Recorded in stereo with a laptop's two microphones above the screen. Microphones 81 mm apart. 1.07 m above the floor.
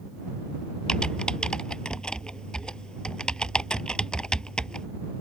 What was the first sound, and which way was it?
Typing on a keyboard, 10° left (ahead or behind).